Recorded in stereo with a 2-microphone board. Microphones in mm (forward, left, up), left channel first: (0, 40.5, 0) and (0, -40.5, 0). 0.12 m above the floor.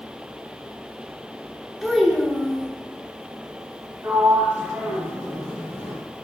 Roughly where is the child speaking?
Centre.